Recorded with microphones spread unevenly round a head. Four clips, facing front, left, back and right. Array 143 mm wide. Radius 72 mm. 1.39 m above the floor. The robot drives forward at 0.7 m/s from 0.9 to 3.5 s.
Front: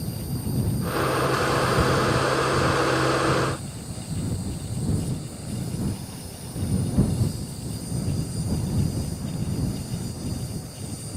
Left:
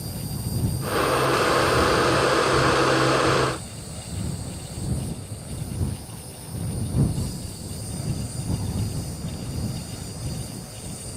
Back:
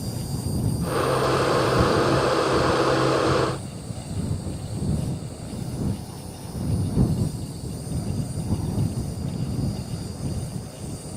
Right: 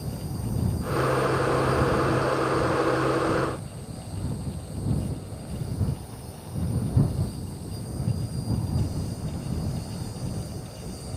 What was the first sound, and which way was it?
An insect, 150° left.